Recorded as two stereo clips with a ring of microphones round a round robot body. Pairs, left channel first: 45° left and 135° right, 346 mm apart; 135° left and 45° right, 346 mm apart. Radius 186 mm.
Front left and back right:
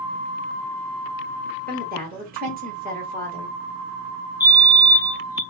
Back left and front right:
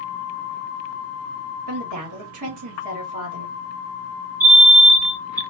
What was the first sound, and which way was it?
A woman speaking, 70° right.